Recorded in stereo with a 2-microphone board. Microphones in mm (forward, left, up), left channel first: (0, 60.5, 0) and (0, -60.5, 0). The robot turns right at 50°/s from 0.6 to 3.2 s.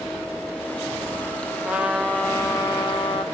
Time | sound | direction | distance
1.6 | a trumpet | 15° right | 0.6 m